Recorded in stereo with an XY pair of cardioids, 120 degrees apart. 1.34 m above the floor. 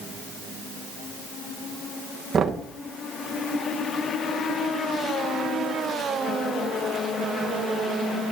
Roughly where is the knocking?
Ahead right.